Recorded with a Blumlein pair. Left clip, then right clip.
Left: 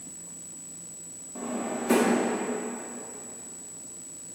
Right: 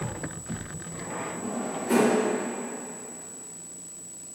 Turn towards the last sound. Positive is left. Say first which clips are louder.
# even
turn(degrees=60)